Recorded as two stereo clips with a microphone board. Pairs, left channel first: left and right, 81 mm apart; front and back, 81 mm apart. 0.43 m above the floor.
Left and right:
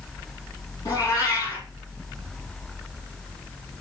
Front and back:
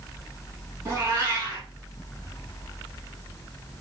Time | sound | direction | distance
0.8 | a cat meowing | 135° left | 4.5 m